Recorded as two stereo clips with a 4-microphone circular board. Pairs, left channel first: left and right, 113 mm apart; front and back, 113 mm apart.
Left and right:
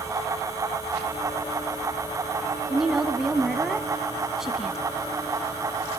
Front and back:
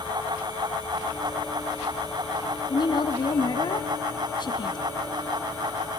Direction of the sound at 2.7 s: 5° right.